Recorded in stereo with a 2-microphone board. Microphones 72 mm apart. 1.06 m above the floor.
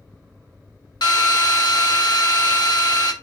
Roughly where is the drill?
Left.